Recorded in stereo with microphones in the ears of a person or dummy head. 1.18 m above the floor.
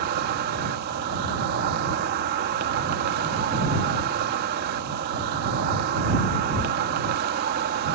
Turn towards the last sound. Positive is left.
turn(degrees=-55)  # may be behind; listen again after turning